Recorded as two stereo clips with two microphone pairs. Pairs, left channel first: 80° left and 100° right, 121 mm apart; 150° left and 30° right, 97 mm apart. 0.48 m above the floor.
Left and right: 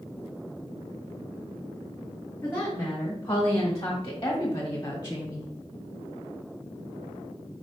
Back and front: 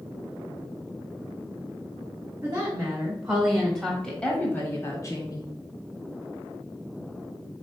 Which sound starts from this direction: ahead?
A woman speaking, at 2.4 s.